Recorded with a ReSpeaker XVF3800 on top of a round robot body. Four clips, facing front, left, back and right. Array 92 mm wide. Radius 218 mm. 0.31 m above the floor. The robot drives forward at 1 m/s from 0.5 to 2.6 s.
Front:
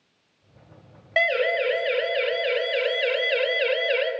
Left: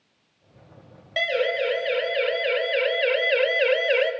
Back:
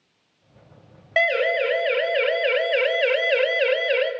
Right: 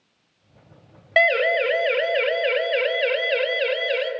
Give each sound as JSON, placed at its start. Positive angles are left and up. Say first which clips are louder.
{"t": 1.2, "sound": "a siren", "louder": "right 5 dB, back 2 dB", "azimuth_deg": -100, "distance_m": 2.5}